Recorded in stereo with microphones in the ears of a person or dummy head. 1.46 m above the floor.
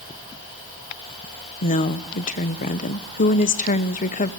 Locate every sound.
1.6 s a woman speaking: 40° left (ahead or behind), 1.0 m